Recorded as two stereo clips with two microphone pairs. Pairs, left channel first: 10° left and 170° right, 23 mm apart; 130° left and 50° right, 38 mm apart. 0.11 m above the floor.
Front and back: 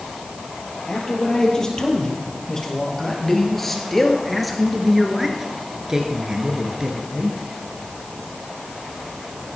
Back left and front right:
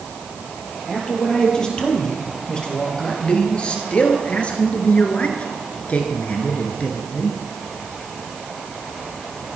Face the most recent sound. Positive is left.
turn(degrees=170)